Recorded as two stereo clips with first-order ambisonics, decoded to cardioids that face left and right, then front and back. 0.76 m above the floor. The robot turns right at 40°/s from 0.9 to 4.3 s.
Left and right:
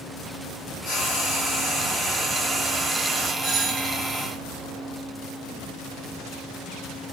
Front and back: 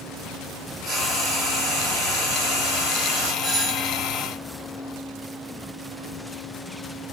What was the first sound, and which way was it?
Frying, 125° left.